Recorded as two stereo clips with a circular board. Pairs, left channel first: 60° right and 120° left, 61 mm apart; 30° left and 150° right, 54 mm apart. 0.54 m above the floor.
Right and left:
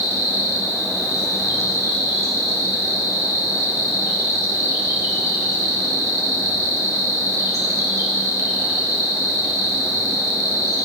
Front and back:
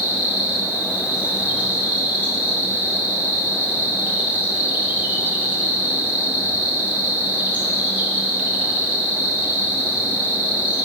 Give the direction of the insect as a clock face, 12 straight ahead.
7 o'clock.